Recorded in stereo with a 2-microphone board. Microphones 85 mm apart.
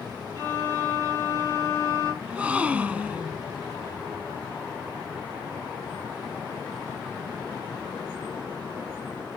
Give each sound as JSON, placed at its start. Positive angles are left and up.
{"t": 0.3, "sound": "a violin", "side_deg": -45, "distance_m": 4.0}
{"t": 2.2, "sound": "a gasp", "side_deg": -15, "distance_m": 0.5}